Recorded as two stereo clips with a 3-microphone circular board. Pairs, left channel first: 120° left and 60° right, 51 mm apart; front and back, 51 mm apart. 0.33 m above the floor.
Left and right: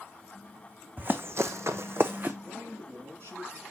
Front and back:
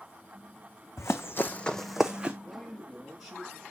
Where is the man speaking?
95° right, 5 m.